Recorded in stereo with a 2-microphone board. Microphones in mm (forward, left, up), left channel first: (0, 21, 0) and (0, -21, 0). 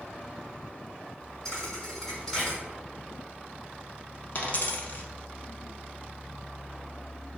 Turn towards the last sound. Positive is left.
turn(degrees=40)  # may be behind; listen again after turning